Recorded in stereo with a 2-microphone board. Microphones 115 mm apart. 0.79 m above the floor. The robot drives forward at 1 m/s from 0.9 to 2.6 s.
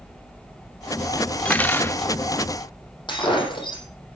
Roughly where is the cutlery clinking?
Centre.